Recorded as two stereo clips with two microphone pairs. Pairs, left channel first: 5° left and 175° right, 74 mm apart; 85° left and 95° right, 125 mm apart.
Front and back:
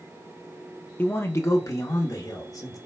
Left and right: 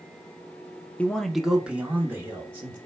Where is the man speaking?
25° left, 0.6 m; by 2.8 s 25° right, 1.4 m.